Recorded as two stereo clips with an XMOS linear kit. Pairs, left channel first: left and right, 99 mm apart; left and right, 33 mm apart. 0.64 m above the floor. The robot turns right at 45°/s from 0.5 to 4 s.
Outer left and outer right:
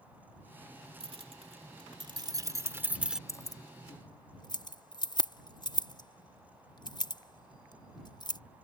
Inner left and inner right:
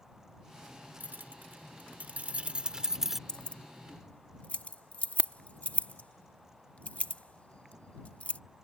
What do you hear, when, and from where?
1.0 s keys jangling: 65° right (ahead or behind); by 3.2 s 5° right (ahead or behind)
3.3 s keys jangling: 30° left (ahead or behind); by 8.4 s 45° left (ahead or behind)